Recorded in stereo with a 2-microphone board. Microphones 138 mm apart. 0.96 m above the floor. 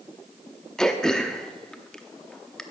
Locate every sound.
0.8 s throat clearing: 5° left (ahead or behind), 0.7 m